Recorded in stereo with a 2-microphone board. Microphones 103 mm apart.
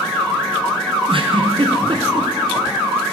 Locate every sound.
1.1 s a giggle: 55° right (ahead or behind), 0.7 m